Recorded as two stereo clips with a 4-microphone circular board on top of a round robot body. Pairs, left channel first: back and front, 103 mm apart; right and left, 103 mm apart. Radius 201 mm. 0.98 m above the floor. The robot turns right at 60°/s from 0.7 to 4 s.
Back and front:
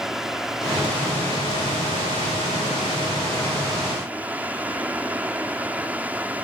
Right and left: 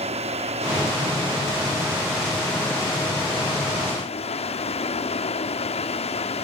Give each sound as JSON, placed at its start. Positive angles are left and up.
{"t": 0.0, "sound": "running water", "azimuth_deg": 85}